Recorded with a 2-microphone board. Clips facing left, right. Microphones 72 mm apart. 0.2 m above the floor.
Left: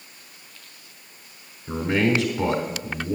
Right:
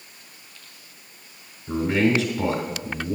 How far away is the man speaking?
About 1.0 m.